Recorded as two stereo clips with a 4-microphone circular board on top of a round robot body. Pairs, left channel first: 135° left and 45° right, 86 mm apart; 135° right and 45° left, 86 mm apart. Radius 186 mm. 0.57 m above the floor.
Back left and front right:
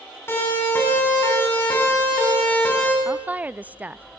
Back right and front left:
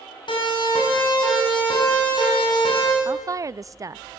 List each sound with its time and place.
0.3 s a siren: 160° right, 7.5 m; by 3.0 s 155° right, 6 m
3.0 s a woman speaking: 20° left, 0.6 m